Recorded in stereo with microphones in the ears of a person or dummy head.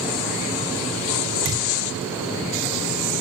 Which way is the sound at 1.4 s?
35° right (ahead or behind).